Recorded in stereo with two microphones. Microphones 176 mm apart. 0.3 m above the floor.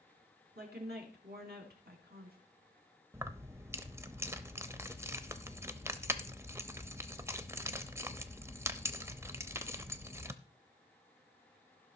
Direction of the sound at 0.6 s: 65° right (ahead or behind).